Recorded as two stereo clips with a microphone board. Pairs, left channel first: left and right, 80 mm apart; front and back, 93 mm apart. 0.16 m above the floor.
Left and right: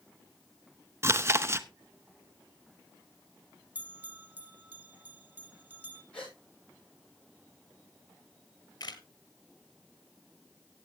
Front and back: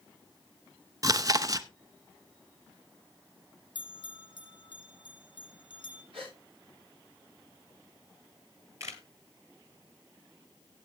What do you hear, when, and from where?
1.0 s chewing: 140° right, 0.6 m
3.8 s a bell: 25° right, 1.4 m
6.1 s a gasp: 170° left, 9.5 m
8.8 s a camera shutter: 125° left, 1.7 m